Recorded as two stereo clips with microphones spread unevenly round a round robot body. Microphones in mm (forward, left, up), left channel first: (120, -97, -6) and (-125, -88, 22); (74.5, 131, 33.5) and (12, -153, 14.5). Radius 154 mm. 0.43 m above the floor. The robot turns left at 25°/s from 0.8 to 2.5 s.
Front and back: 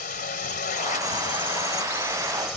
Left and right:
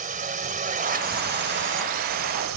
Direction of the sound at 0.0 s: 45° right.